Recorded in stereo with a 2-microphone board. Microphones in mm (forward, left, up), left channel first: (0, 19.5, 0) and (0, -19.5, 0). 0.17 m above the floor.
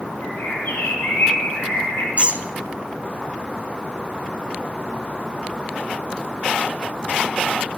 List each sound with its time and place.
0.2 s a bird: 70° left (ahead or behind), 4.5 m
2.2 s a squeak: 35° right (ahead or behind), 0.8 m